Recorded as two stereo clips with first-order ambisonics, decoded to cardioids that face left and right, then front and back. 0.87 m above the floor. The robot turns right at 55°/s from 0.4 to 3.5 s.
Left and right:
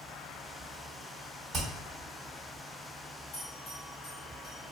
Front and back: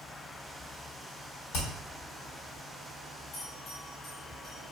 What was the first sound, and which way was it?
Hammering, 25° right.